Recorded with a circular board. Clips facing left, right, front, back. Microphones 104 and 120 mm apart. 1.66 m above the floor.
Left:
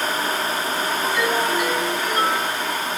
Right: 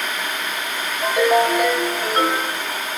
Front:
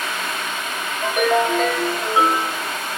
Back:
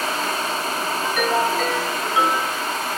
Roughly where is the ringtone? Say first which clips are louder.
Right 8 dB, front 4 dB; ahead right.